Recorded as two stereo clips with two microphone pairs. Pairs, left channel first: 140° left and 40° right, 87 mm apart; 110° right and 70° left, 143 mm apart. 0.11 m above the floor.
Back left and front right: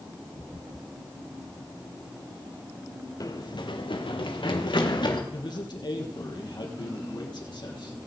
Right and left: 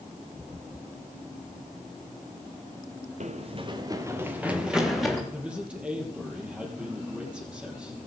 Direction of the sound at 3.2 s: 100° left.